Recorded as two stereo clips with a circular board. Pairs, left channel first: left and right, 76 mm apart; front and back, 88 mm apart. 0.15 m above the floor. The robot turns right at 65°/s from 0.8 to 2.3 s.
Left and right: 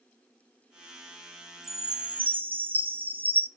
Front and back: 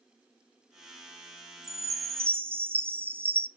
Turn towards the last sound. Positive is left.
turn(degrees=-135)